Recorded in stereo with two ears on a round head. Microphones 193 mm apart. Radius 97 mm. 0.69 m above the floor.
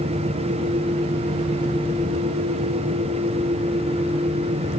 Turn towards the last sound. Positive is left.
No sound to turn to.